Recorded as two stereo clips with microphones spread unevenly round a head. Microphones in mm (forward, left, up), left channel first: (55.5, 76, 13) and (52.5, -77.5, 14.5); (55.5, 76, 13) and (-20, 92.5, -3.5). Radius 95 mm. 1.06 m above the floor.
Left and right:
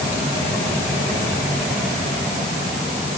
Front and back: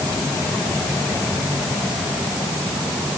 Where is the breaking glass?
I don't hear breaking glass.